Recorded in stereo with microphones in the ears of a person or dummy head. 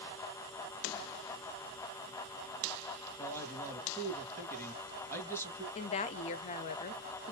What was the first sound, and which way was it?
A man speaking, 15° left (ahead or behind).